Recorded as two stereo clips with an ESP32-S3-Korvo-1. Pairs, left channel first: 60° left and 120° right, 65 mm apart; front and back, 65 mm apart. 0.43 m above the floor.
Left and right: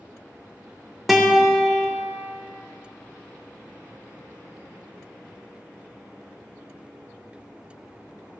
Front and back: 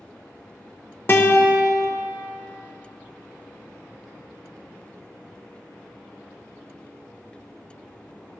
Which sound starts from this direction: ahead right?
A guitar, at 1.1 s.